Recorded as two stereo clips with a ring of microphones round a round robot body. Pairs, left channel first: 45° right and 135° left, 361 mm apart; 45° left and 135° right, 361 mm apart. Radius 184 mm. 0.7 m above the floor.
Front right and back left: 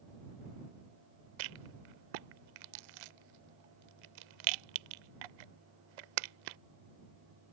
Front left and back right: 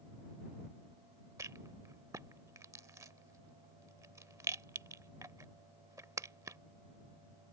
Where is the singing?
No singing in this recording.